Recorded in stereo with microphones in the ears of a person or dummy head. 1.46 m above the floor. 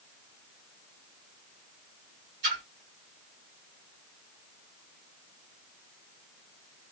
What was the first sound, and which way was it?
A splash, 60° right (ahead or behind).